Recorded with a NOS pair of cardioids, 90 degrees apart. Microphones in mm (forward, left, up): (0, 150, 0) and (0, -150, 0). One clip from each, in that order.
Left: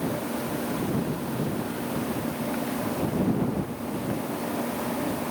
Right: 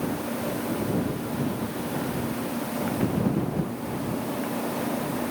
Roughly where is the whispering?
No whispering in this recording.